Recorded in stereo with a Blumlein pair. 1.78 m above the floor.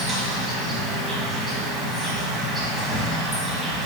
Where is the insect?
15° right, 1.2 m.